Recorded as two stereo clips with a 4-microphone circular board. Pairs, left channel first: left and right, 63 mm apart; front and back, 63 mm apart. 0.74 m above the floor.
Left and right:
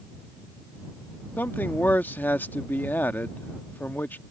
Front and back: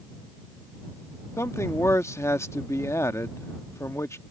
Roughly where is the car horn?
I don't hear a car horn.